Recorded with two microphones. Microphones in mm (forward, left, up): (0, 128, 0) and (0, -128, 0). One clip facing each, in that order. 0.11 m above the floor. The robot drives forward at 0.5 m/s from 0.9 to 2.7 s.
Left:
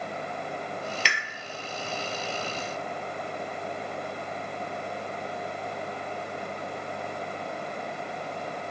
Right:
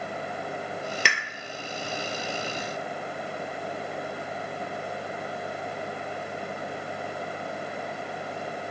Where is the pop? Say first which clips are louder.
Right 3 dB; 55° right (ahead or behind), 0.5 m; by 1.2 s 50° right (ahead or behind), 0.5 m.